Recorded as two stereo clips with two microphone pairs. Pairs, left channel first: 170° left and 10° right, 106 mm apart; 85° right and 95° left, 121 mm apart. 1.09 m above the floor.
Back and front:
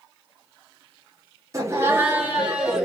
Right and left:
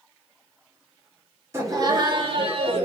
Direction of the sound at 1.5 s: 35° left.